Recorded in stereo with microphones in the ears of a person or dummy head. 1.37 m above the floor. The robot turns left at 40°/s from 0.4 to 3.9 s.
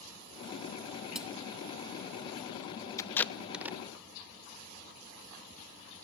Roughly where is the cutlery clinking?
Centre.